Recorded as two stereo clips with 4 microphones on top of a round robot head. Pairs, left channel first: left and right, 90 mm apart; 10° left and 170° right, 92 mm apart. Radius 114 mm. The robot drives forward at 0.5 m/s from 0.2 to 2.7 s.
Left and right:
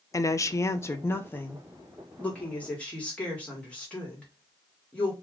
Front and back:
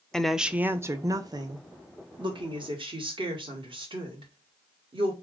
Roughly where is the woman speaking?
Left.